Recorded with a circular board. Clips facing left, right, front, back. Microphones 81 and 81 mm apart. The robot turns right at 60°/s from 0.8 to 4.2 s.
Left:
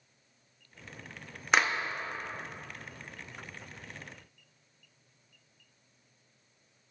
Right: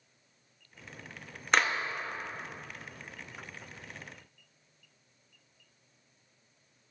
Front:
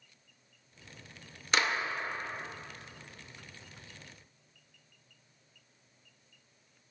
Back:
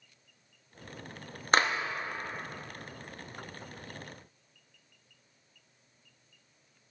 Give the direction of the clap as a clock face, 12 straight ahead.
6 o'clock.